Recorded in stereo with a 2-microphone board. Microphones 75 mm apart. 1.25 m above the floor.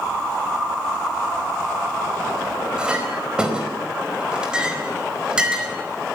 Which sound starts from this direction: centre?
A clink, at 2.8 s.